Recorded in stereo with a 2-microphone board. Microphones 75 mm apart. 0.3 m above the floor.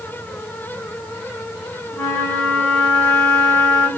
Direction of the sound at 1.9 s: 5° left (ahead or behind).